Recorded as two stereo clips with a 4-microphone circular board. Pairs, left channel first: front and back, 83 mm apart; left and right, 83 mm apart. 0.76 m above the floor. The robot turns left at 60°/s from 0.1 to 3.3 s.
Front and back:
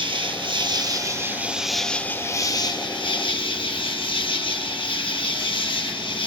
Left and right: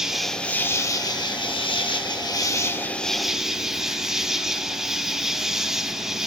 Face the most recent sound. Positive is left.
turn(degrees=-5)